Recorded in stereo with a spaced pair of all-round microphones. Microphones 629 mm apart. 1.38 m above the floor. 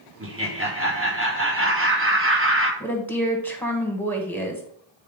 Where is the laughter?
20° right (ahead or behind), 1.5 m.